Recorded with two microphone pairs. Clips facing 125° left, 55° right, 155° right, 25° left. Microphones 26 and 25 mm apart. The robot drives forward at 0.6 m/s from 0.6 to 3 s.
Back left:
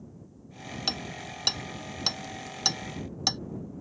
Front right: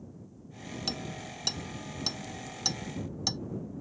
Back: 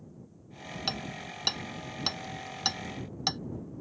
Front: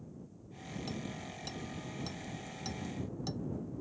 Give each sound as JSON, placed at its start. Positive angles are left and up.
{"t": 0.9, "sound": "hammering", "azimuth_deg": -175}